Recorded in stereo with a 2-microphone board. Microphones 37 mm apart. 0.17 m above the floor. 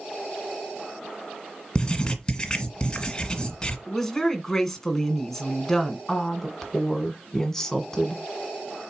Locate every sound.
1.8 s writing: 20° left (ahead or behind), 1.4 m
3.9 s a woman speaking: 5° left (ahead or behind), 1.5 m
6.1 s a woman speaking: 10° left (ahead or behind), 1.4 m